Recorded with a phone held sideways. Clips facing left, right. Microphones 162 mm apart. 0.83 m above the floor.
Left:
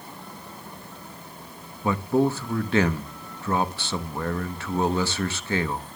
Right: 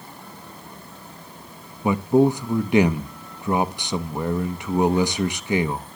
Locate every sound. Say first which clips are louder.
1.8 s a man speaking: right 5 dB; 15° right (ahead or behind), 0.7 m